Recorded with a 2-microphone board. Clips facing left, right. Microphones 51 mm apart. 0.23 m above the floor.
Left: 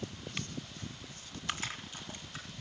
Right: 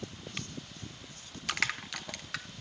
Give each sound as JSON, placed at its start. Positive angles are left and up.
{"t": 1.5, "sound": "crushing", "side_deg": -75, "distance_m": 1.3}